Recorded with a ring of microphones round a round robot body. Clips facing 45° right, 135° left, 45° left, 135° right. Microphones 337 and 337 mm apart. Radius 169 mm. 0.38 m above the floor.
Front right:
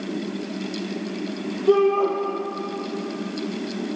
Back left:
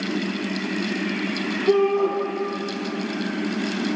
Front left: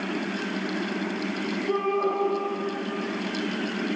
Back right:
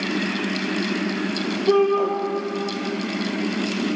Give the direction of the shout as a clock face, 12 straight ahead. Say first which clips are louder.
Front right 1 dB, back right 9 dB; 5 o'clock.